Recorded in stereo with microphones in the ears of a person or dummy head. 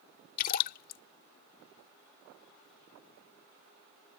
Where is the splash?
50° left (ahead or behind).